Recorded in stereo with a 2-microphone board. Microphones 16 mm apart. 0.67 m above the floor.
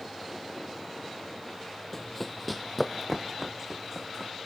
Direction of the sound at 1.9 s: 10° left (ahead or behind).